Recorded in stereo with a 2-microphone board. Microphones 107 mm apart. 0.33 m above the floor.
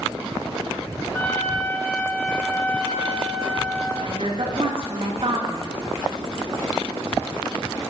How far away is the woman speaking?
About 4 m.